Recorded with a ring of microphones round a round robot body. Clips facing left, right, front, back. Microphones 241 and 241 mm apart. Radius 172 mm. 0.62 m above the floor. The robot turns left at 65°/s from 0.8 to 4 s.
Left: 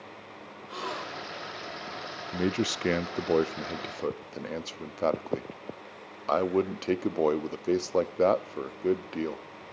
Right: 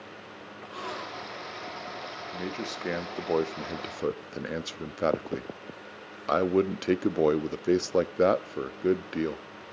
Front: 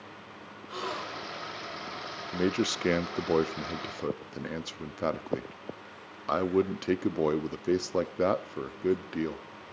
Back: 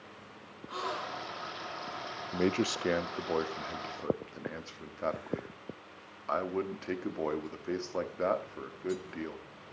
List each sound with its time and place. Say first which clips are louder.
0.7 s a gasp: left 2 dB, front 2 dB; 55° left, 2 m; by 1.5 s 10° left, 2 m
2.3 s a man speaking: left 8 dB, front 2 dB; 85° left, 0.7 m; by 9.4 s 20° right, 0.7 m